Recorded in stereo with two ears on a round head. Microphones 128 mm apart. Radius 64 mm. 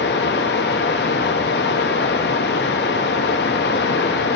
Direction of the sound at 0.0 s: 85° left.